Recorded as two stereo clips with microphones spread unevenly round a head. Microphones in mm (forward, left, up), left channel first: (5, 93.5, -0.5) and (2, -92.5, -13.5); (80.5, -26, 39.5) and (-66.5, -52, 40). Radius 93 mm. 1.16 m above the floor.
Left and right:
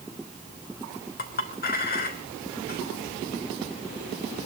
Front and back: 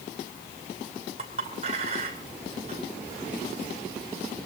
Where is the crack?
No crack in this recording.